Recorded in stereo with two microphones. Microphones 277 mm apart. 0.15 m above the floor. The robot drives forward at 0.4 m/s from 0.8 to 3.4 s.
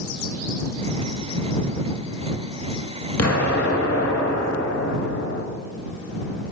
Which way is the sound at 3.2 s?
60° left (ahead or behind).